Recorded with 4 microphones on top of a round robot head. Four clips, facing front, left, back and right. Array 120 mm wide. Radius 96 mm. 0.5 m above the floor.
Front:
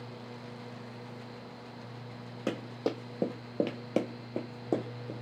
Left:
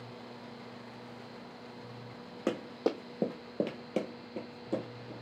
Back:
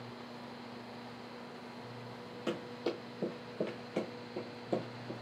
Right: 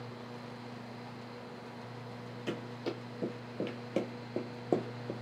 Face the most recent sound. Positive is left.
turn(degrees=-65)